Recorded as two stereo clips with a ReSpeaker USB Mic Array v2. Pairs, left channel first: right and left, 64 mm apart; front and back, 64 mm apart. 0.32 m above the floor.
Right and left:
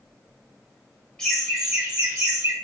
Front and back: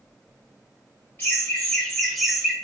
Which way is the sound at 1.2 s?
20° right.